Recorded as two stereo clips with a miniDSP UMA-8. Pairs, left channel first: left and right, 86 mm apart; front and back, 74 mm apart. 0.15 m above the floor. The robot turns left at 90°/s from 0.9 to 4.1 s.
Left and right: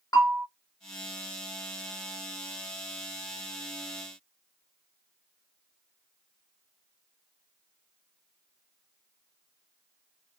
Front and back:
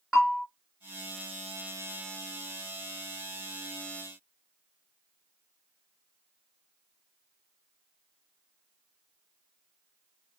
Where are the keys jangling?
I don't hear keys jangling.